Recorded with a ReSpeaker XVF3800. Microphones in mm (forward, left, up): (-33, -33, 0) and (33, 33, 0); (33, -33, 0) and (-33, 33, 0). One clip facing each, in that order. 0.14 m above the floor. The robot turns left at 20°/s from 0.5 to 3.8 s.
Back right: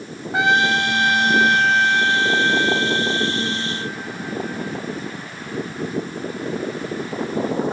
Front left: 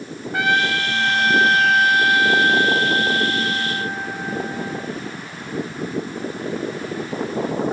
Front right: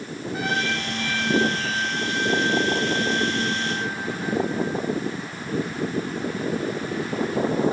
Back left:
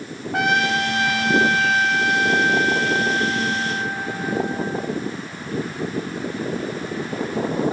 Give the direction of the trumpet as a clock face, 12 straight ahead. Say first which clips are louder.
Back right 2 dB, back left 7 dB; 7 o'clock.